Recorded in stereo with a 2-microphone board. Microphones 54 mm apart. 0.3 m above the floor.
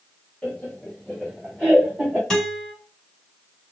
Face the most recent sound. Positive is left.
turn(degrees=10)  # may be behind; listen again after turning